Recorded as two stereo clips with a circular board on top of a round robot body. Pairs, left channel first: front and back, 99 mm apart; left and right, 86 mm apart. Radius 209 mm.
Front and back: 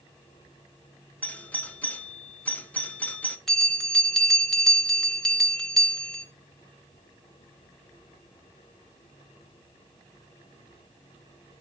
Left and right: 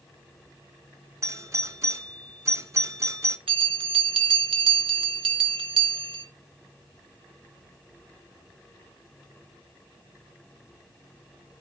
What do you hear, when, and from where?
1.2 s a doorbell: 65° right, 1.5 m
3.5 s a bell: 90° right, 1.6 m